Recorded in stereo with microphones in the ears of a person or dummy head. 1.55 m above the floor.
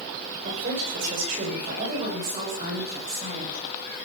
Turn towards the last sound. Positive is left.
turn(degrees=-30)  # may be behind; listen again after turning